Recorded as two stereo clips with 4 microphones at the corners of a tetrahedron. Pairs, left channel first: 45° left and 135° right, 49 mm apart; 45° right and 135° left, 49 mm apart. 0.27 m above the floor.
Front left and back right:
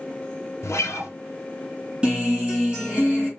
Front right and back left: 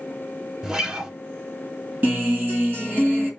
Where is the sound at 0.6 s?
55° left, 0.8 m.